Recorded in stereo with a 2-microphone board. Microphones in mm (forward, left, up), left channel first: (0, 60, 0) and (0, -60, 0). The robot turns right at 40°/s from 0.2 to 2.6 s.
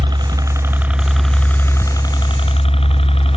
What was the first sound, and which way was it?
A helicopter, 35° right (ahead or behind).